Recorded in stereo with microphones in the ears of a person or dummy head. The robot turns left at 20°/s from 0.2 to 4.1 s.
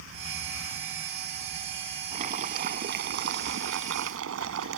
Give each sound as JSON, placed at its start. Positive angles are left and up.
{"t": 2.1, "sound": "boiling", "azimuth_deg": -40}